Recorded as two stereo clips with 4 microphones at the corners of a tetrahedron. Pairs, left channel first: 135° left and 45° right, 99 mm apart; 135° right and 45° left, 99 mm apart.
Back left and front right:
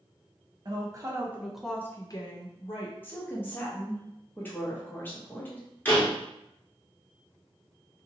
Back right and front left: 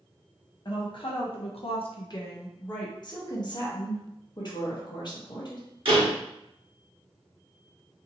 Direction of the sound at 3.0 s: 160° right.